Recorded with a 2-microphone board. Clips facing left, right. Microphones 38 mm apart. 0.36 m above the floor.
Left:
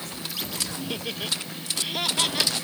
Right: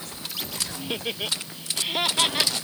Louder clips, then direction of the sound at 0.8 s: Right 5 dB; 15° right (ahead or behind).